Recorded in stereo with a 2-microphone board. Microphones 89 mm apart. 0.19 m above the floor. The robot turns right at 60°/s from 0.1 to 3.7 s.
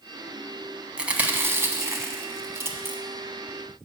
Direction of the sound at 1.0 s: 10° right (ahead or behind).